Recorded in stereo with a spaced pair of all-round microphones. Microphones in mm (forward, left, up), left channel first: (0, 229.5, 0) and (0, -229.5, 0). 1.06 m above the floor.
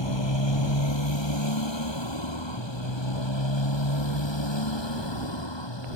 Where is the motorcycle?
80° left.